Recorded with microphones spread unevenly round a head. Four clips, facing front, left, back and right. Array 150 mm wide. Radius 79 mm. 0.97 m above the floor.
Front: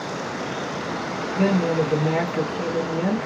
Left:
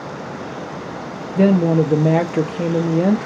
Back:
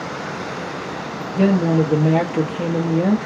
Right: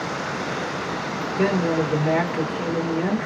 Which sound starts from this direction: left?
A woman speaking, at 1.4 s.